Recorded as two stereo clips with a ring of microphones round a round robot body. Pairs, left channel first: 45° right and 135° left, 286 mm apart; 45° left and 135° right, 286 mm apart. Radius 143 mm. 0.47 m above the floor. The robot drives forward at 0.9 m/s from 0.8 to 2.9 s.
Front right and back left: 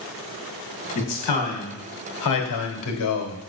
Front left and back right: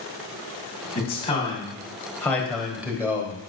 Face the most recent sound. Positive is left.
turn(degrees=-50)